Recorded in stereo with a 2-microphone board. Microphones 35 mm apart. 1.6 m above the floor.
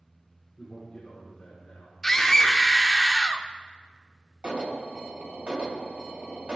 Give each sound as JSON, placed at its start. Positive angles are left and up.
{"t": 0.6, "sound": "a man speaking", "side_deg": 5, "distance_m": 4.5}
{"t": 2.0, "sound": "a scream", "side_deg": 10, "distance_m": 0.9}
{"t": 4.4, "sound": "an alarm", "side_deg": -35, "distance_m": 1.3}